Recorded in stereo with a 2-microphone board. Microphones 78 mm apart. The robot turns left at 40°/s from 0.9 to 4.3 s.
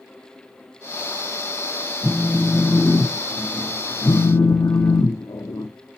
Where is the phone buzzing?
160° right, 0.7 m; by 5.7 s 110° left, 0.7 m.